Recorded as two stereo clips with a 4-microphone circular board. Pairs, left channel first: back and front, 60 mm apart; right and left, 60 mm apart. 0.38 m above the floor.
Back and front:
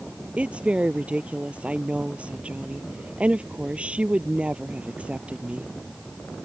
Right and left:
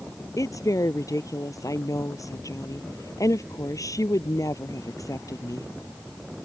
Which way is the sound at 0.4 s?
70° right.